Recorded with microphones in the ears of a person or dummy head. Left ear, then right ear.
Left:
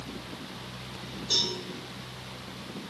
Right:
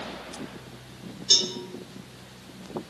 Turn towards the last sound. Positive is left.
turn(degrees=-55)  # may be behind; listen again after turning